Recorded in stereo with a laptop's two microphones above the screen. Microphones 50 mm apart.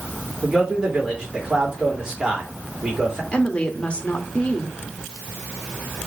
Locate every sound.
0.4 s a man speaking: 15° right (ahead or behind), 3.5 m
3.3 s a woman speaking: 25° left (ahead or behind), 2.0 m